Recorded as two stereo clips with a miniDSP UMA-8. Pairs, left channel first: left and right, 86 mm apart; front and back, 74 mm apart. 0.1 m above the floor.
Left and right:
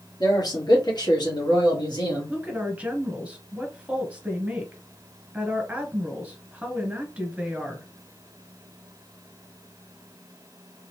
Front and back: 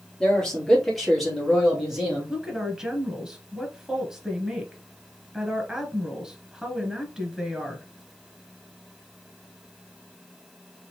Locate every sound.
0.2 s a man speaking: 75° left, 2.0 m; by 2.3 s 100° left, 2.5 m
2.3 s a woman speaking: 120° right, 1.3 m